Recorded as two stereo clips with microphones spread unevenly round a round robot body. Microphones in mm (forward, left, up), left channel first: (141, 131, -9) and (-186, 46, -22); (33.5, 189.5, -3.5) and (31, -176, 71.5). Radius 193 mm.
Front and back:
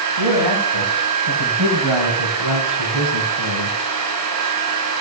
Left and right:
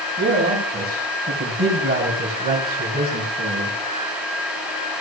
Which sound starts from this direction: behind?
A man speaking, at 0.2 s.